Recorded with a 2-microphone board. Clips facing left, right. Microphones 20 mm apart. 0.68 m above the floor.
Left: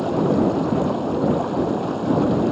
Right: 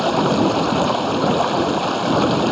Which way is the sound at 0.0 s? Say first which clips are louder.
Right 2 dB; 75° right (ahead or behind).